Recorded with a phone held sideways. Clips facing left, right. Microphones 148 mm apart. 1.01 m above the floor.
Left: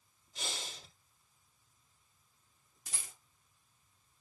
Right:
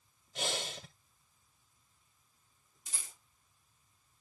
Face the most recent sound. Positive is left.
turn(degrees=75)  # may be behind; listen again after turning